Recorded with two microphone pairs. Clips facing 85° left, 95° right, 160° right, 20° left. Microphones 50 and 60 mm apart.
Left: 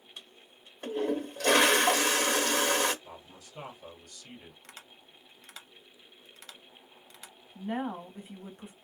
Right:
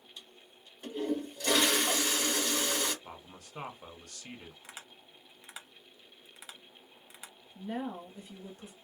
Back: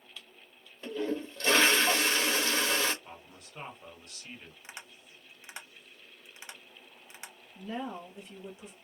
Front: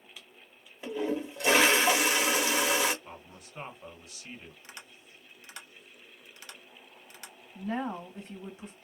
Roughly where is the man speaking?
Ahead right.